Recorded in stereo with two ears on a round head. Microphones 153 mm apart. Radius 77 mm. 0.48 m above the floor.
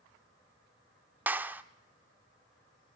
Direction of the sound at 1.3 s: 10° right (ahead or behind).